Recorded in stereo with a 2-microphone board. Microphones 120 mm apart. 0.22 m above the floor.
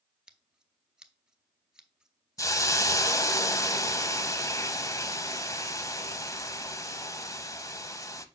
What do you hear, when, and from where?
0.3 s scissors: 5° right (ahead or behind), 0.7 m
2.4 s a hiss: 30° left (ahead or behind), 0.6 m